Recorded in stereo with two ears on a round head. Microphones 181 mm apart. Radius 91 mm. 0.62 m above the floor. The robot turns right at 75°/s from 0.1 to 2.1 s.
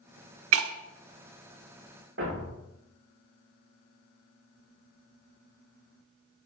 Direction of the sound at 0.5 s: 75° right (ahead or behind).